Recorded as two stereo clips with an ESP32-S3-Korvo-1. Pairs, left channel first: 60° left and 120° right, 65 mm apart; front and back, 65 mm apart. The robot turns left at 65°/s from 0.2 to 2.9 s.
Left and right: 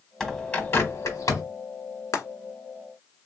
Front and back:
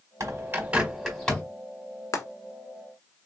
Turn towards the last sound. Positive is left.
turn(degrees=-25)